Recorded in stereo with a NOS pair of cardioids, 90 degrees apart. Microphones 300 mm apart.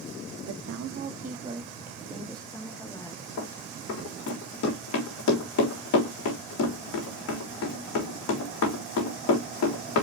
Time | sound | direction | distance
0.5 | a woman speaking | 70° right | 0.7 m
3.4 | running footsteps | 60° left | 3.5 m